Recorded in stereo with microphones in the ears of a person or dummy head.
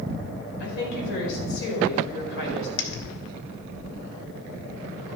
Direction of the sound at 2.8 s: 65° left (ahead or behind).